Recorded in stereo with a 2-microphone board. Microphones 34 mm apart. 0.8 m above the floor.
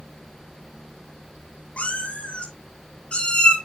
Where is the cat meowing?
45° left (ahead or behind), 7.5 m; by 3.5 s 30° left (ahead or behind), 7 m.